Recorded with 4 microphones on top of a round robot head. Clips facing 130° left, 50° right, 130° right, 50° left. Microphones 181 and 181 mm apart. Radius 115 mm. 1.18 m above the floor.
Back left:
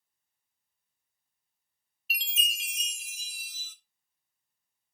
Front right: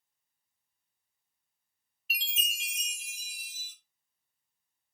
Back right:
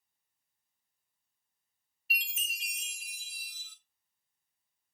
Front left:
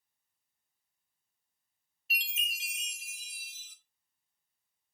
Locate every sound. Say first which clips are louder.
2.1 s a chime: back left 2 dB, even; 115° left, 0.5 m